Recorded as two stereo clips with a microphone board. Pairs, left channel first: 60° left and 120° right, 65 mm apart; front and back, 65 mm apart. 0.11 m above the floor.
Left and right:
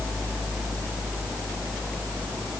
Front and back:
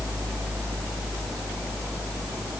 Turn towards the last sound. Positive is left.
No sound to turn to.